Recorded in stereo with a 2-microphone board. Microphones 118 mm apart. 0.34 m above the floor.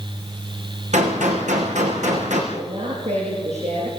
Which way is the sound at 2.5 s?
75° right (ahead or behind).